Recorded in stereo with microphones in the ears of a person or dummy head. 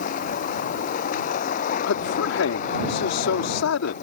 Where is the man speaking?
80° left.